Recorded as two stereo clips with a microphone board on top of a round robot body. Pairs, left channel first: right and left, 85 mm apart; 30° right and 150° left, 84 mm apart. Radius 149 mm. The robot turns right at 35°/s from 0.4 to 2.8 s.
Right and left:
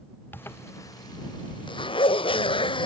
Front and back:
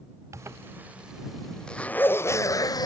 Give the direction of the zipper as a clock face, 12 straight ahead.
5 o'clock.